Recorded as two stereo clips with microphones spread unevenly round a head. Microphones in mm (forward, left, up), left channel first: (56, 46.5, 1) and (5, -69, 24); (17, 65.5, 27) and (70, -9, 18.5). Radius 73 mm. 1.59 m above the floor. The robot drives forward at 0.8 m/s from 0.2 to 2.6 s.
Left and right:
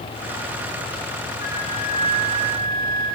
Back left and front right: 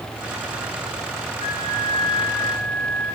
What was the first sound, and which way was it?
A flute, 110° left.